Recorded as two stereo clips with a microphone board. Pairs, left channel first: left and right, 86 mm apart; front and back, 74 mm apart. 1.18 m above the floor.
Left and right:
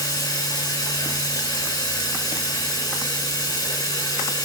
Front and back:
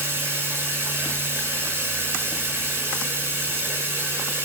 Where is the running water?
125° left, 6 m.